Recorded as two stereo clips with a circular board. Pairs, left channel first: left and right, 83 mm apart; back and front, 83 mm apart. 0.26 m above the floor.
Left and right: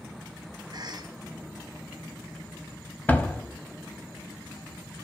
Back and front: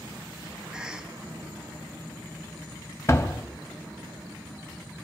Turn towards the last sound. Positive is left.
turn(degrees=150)